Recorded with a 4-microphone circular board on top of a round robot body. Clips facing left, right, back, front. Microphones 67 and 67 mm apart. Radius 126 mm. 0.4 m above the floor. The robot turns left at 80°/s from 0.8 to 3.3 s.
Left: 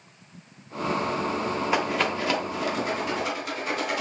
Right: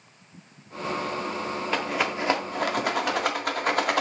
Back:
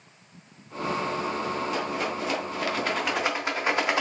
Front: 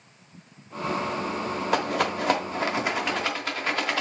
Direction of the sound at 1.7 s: 15° left.